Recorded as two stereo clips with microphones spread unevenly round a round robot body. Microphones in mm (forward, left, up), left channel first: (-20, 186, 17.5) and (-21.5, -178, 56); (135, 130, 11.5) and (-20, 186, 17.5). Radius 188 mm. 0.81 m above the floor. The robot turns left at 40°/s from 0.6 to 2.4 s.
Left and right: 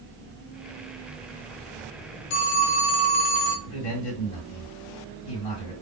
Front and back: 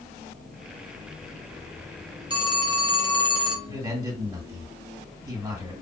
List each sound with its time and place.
2.3 s a phone ringing: 95° left, 1.1 m; by 3.5 s 90° left, 1.1 m
3.6 s a man speaking: 95° left, 2.5 m